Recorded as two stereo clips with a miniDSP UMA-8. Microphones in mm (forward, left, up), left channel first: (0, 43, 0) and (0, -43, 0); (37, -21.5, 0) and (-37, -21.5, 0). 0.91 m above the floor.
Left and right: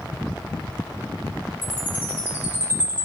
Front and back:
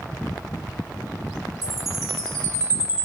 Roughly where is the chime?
Behind right.